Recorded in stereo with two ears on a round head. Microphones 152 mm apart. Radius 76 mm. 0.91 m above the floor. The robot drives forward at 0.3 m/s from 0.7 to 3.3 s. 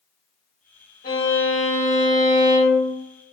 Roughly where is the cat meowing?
I don't hear a cat meowing.